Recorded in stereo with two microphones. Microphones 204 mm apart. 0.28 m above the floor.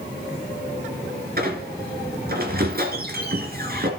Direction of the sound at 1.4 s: 50° right (ahead or behind).